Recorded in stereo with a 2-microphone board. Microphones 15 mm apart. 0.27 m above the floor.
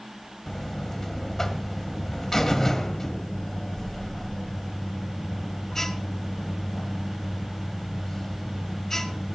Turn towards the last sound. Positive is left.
turn(degrees=25)  # may be behind; listen again after turning